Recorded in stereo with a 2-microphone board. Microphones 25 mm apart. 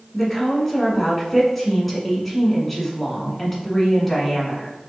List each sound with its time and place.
0.1 s a woman speaking: centre (ahead or behind), 1.5 m